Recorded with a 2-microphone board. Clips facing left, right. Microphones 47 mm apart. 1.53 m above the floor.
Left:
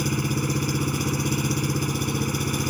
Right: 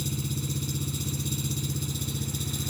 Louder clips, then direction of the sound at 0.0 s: Left 8 dB; 60° left (ahead or behind).